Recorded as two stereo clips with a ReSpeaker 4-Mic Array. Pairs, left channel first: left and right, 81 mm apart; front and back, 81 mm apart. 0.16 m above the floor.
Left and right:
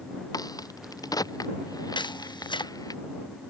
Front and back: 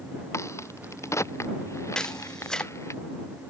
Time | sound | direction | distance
0.3 | a crack | 55° left | ?
1.9 | a camera shutter | 80° left | ?